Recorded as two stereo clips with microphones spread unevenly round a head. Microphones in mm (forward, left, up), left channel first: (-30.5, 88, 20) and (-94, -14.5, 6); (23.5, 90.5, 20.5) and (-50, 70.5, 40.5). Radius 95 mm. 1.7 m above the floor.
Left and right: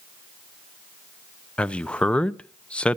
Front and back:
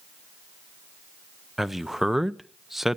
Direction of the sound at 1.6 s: 125° left.